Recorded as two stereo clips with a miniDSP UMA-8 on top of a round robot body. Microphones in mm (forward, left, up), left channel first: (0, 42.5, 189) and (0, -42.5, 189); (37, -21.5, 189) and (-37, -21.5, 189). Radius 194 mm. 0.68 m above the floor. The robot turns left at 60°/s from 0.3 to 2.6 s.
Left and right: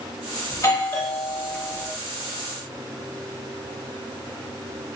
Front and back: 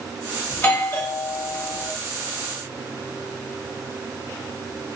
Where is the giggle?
No giggle in this recording.